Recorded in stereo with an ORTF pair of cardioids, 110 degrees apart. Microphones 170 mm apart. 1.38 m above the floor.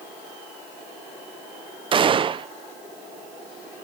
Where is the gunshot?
30° right, 0.5 m.